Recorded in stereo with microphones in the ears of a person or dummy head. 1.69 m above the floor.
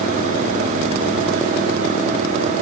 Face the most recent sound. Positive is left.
No sound to turn to.